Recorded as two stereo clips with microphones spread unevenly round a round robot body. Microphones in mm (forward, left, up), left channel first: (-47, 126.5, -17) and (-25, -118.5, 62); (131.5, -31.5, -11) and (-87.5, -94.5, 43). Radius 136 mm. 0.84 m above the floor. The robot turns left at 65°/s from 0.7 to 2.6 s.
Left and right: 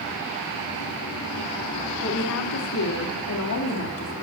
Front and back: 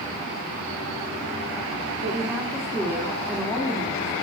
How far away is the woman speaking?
About 1.8 m.